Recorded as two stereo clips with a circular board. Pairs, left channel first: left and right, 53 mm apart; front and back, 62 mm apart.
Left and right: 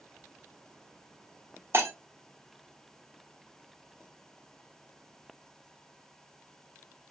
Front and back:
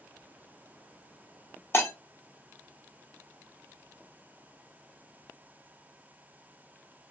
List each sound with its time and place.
1.7 s breaking glass: 50° right, 0.7 m